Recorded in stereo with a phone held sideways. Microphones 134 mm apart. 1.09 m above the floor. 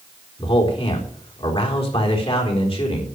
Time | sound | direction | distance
0.4 | a man speaking | 45° left (ahead or behind) | 4 m